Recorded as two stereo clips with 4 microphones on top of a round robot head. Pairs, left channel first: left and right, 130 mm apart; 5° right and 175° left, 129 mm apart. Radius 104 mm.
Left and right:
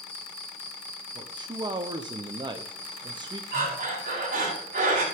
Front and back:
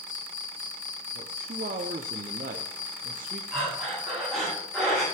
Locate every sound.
0.0 s an insect: 10° left, 1.3 m
1.1 s a man speaking: 145° right, 0.9 m
3.5 s breathing: 95° right, 7.5 m